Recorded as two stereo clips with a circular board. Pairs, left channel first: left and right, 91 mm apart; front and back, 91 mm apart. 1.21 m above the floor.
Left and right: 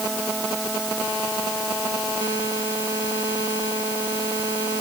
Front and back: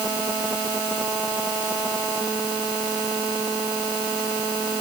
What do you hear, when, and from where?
Only background noise.